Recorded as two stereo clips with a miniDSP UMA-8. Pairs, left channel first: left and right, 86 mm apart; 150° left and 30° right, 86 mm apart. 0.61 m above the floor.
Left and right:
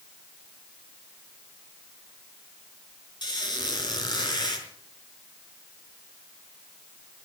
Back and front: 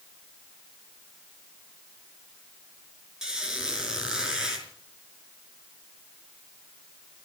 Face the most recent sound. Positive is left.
turn(degrees=55)